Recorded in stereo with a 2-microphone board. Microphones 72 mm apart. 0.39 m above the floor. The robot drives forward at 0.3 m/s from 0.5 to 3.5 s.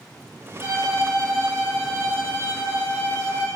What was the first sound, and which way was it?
A violin, 40° right (ahead or behind).